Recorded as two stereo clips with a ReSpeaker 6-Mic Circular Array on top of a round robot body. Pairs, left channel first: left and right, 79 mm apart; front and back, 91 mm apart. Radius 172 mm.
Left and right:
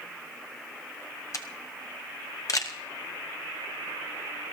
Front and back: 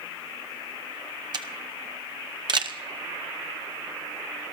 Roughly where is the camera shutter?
Behind left.